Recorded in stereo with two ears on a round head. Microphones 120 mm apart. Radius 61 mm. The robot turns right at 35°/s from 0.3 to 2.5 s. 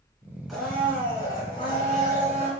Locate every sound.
0.5 s a blender: straight ahead, 2.5 m; by 2.5 s 70° left, 2.5 m